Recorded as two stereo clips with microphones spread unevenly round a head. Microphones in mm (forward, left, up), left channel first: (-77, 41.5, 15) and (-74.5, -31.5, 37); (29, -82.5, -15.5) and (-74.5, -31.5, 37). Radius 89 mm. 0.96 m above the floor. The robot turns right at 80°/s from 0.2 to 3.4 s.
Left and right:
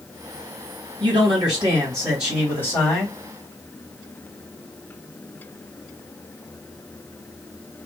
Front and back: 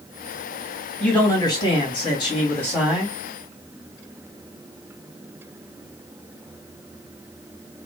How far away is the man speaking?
About 1.7 m.